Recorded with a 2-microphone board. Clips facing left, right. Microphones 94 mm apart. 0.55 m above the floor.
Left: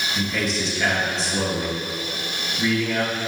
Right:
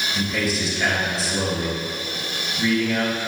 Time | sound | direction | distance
0.1 | a man speaking | 5° right (ahead or behind) | 3.5 m